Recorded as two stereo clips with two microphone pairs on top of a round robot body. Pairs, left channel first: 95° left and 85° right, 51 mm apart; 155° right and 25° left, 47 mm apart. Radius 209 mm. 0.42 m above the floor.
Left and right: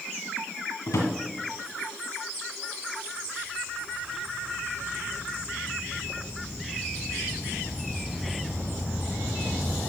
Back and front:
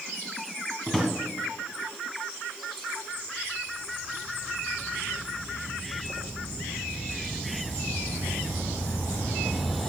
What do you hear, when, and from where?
0.9 s a drawer: 120° left, 1.8 m